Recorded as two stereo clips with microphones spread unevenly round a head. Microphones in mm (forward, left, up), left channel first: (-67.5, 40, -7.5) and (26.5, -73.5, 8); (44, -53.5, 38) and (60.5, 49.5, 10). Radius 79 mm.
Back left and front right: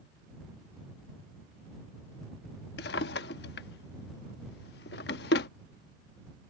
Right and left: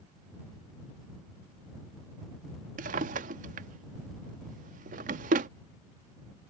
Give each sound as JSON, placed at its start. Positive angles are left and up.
{"t": 2.8, "sound": "a drawer", "azimuth_deg": 95}